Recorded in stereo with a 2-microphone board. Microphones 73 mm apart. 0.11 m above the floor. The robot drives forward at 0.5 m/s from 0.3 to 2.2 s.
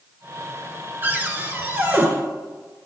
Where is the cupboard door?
25° right (ahead or behind), 0.9 m.